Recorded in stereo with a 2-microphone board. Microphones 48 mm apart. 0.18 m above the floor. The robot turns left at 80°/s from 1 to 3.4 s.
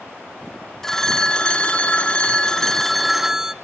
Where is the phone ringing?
5° left (ahead or behind), 0.6 m; by 3.5 s 10° right (ahead or behind), 0.6 m.